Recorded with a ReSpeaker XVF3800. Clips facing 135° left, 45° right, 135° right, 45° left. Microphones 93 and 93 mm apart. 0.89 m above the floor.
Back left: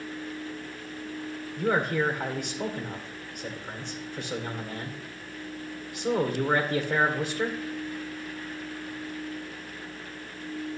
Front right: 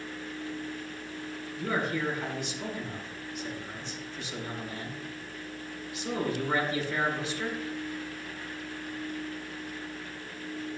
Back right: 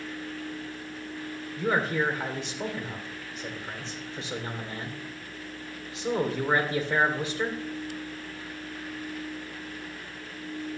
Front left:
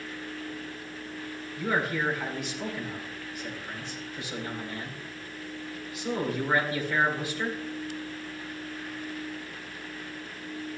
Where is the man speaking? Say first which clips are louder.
Back left 5 dB, back right 2 dB; 165° left, 2.5 m.